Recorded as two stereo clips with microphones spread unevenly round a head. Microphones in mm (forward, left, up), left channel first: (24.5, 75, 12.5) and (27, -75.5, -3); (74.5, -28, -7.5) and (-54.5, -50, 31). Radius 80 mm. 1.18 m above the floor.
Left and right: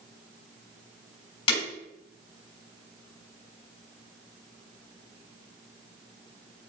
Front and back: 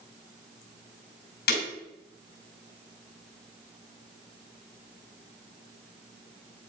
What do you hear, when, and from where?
1.5 s breaking glass: 40° left, 4.5 m